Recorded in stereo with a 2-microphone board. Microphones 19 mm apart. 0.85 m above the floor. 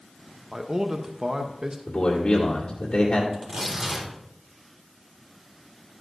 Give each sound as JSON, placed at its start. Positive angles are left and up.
{"t": 0.5, "sound": "a man speaking", "side_deg": -35, "distance_m": 0.7}
{"t": 1.9, "sound": "a man speaking", "side_deg": 70, "distance_m": 2.0}
{"t": 3.3, "sound": "tearing paper", "side_deg": -25, "distance_m": 3.5}